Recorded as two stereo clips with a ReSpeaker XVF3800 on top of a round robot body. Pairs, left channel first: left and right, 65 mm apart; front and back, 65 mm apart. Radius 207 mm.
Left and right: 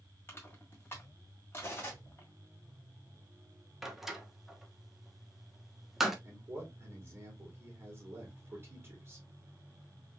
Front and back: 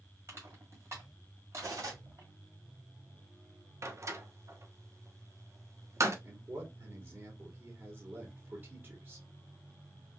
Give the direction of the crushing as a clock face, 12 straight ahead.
7 o'clock.